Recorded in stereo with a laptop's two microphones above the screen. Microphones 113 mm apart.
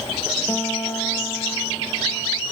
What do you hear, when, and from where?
0.5 s a guitar: 20° left (ahead or behind), 2 m